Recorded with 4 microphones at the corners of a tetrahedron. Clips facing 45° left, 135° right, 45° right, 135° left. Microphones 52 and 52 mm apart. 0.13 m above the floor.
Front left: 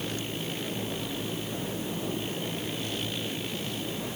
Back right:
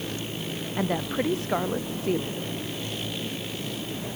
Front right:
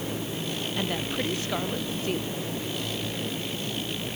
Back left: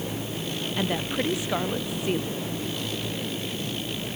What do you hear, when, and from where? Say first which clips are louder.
0.8 s a woman speaking: back right 7 dB, back left 3 dB; 150° right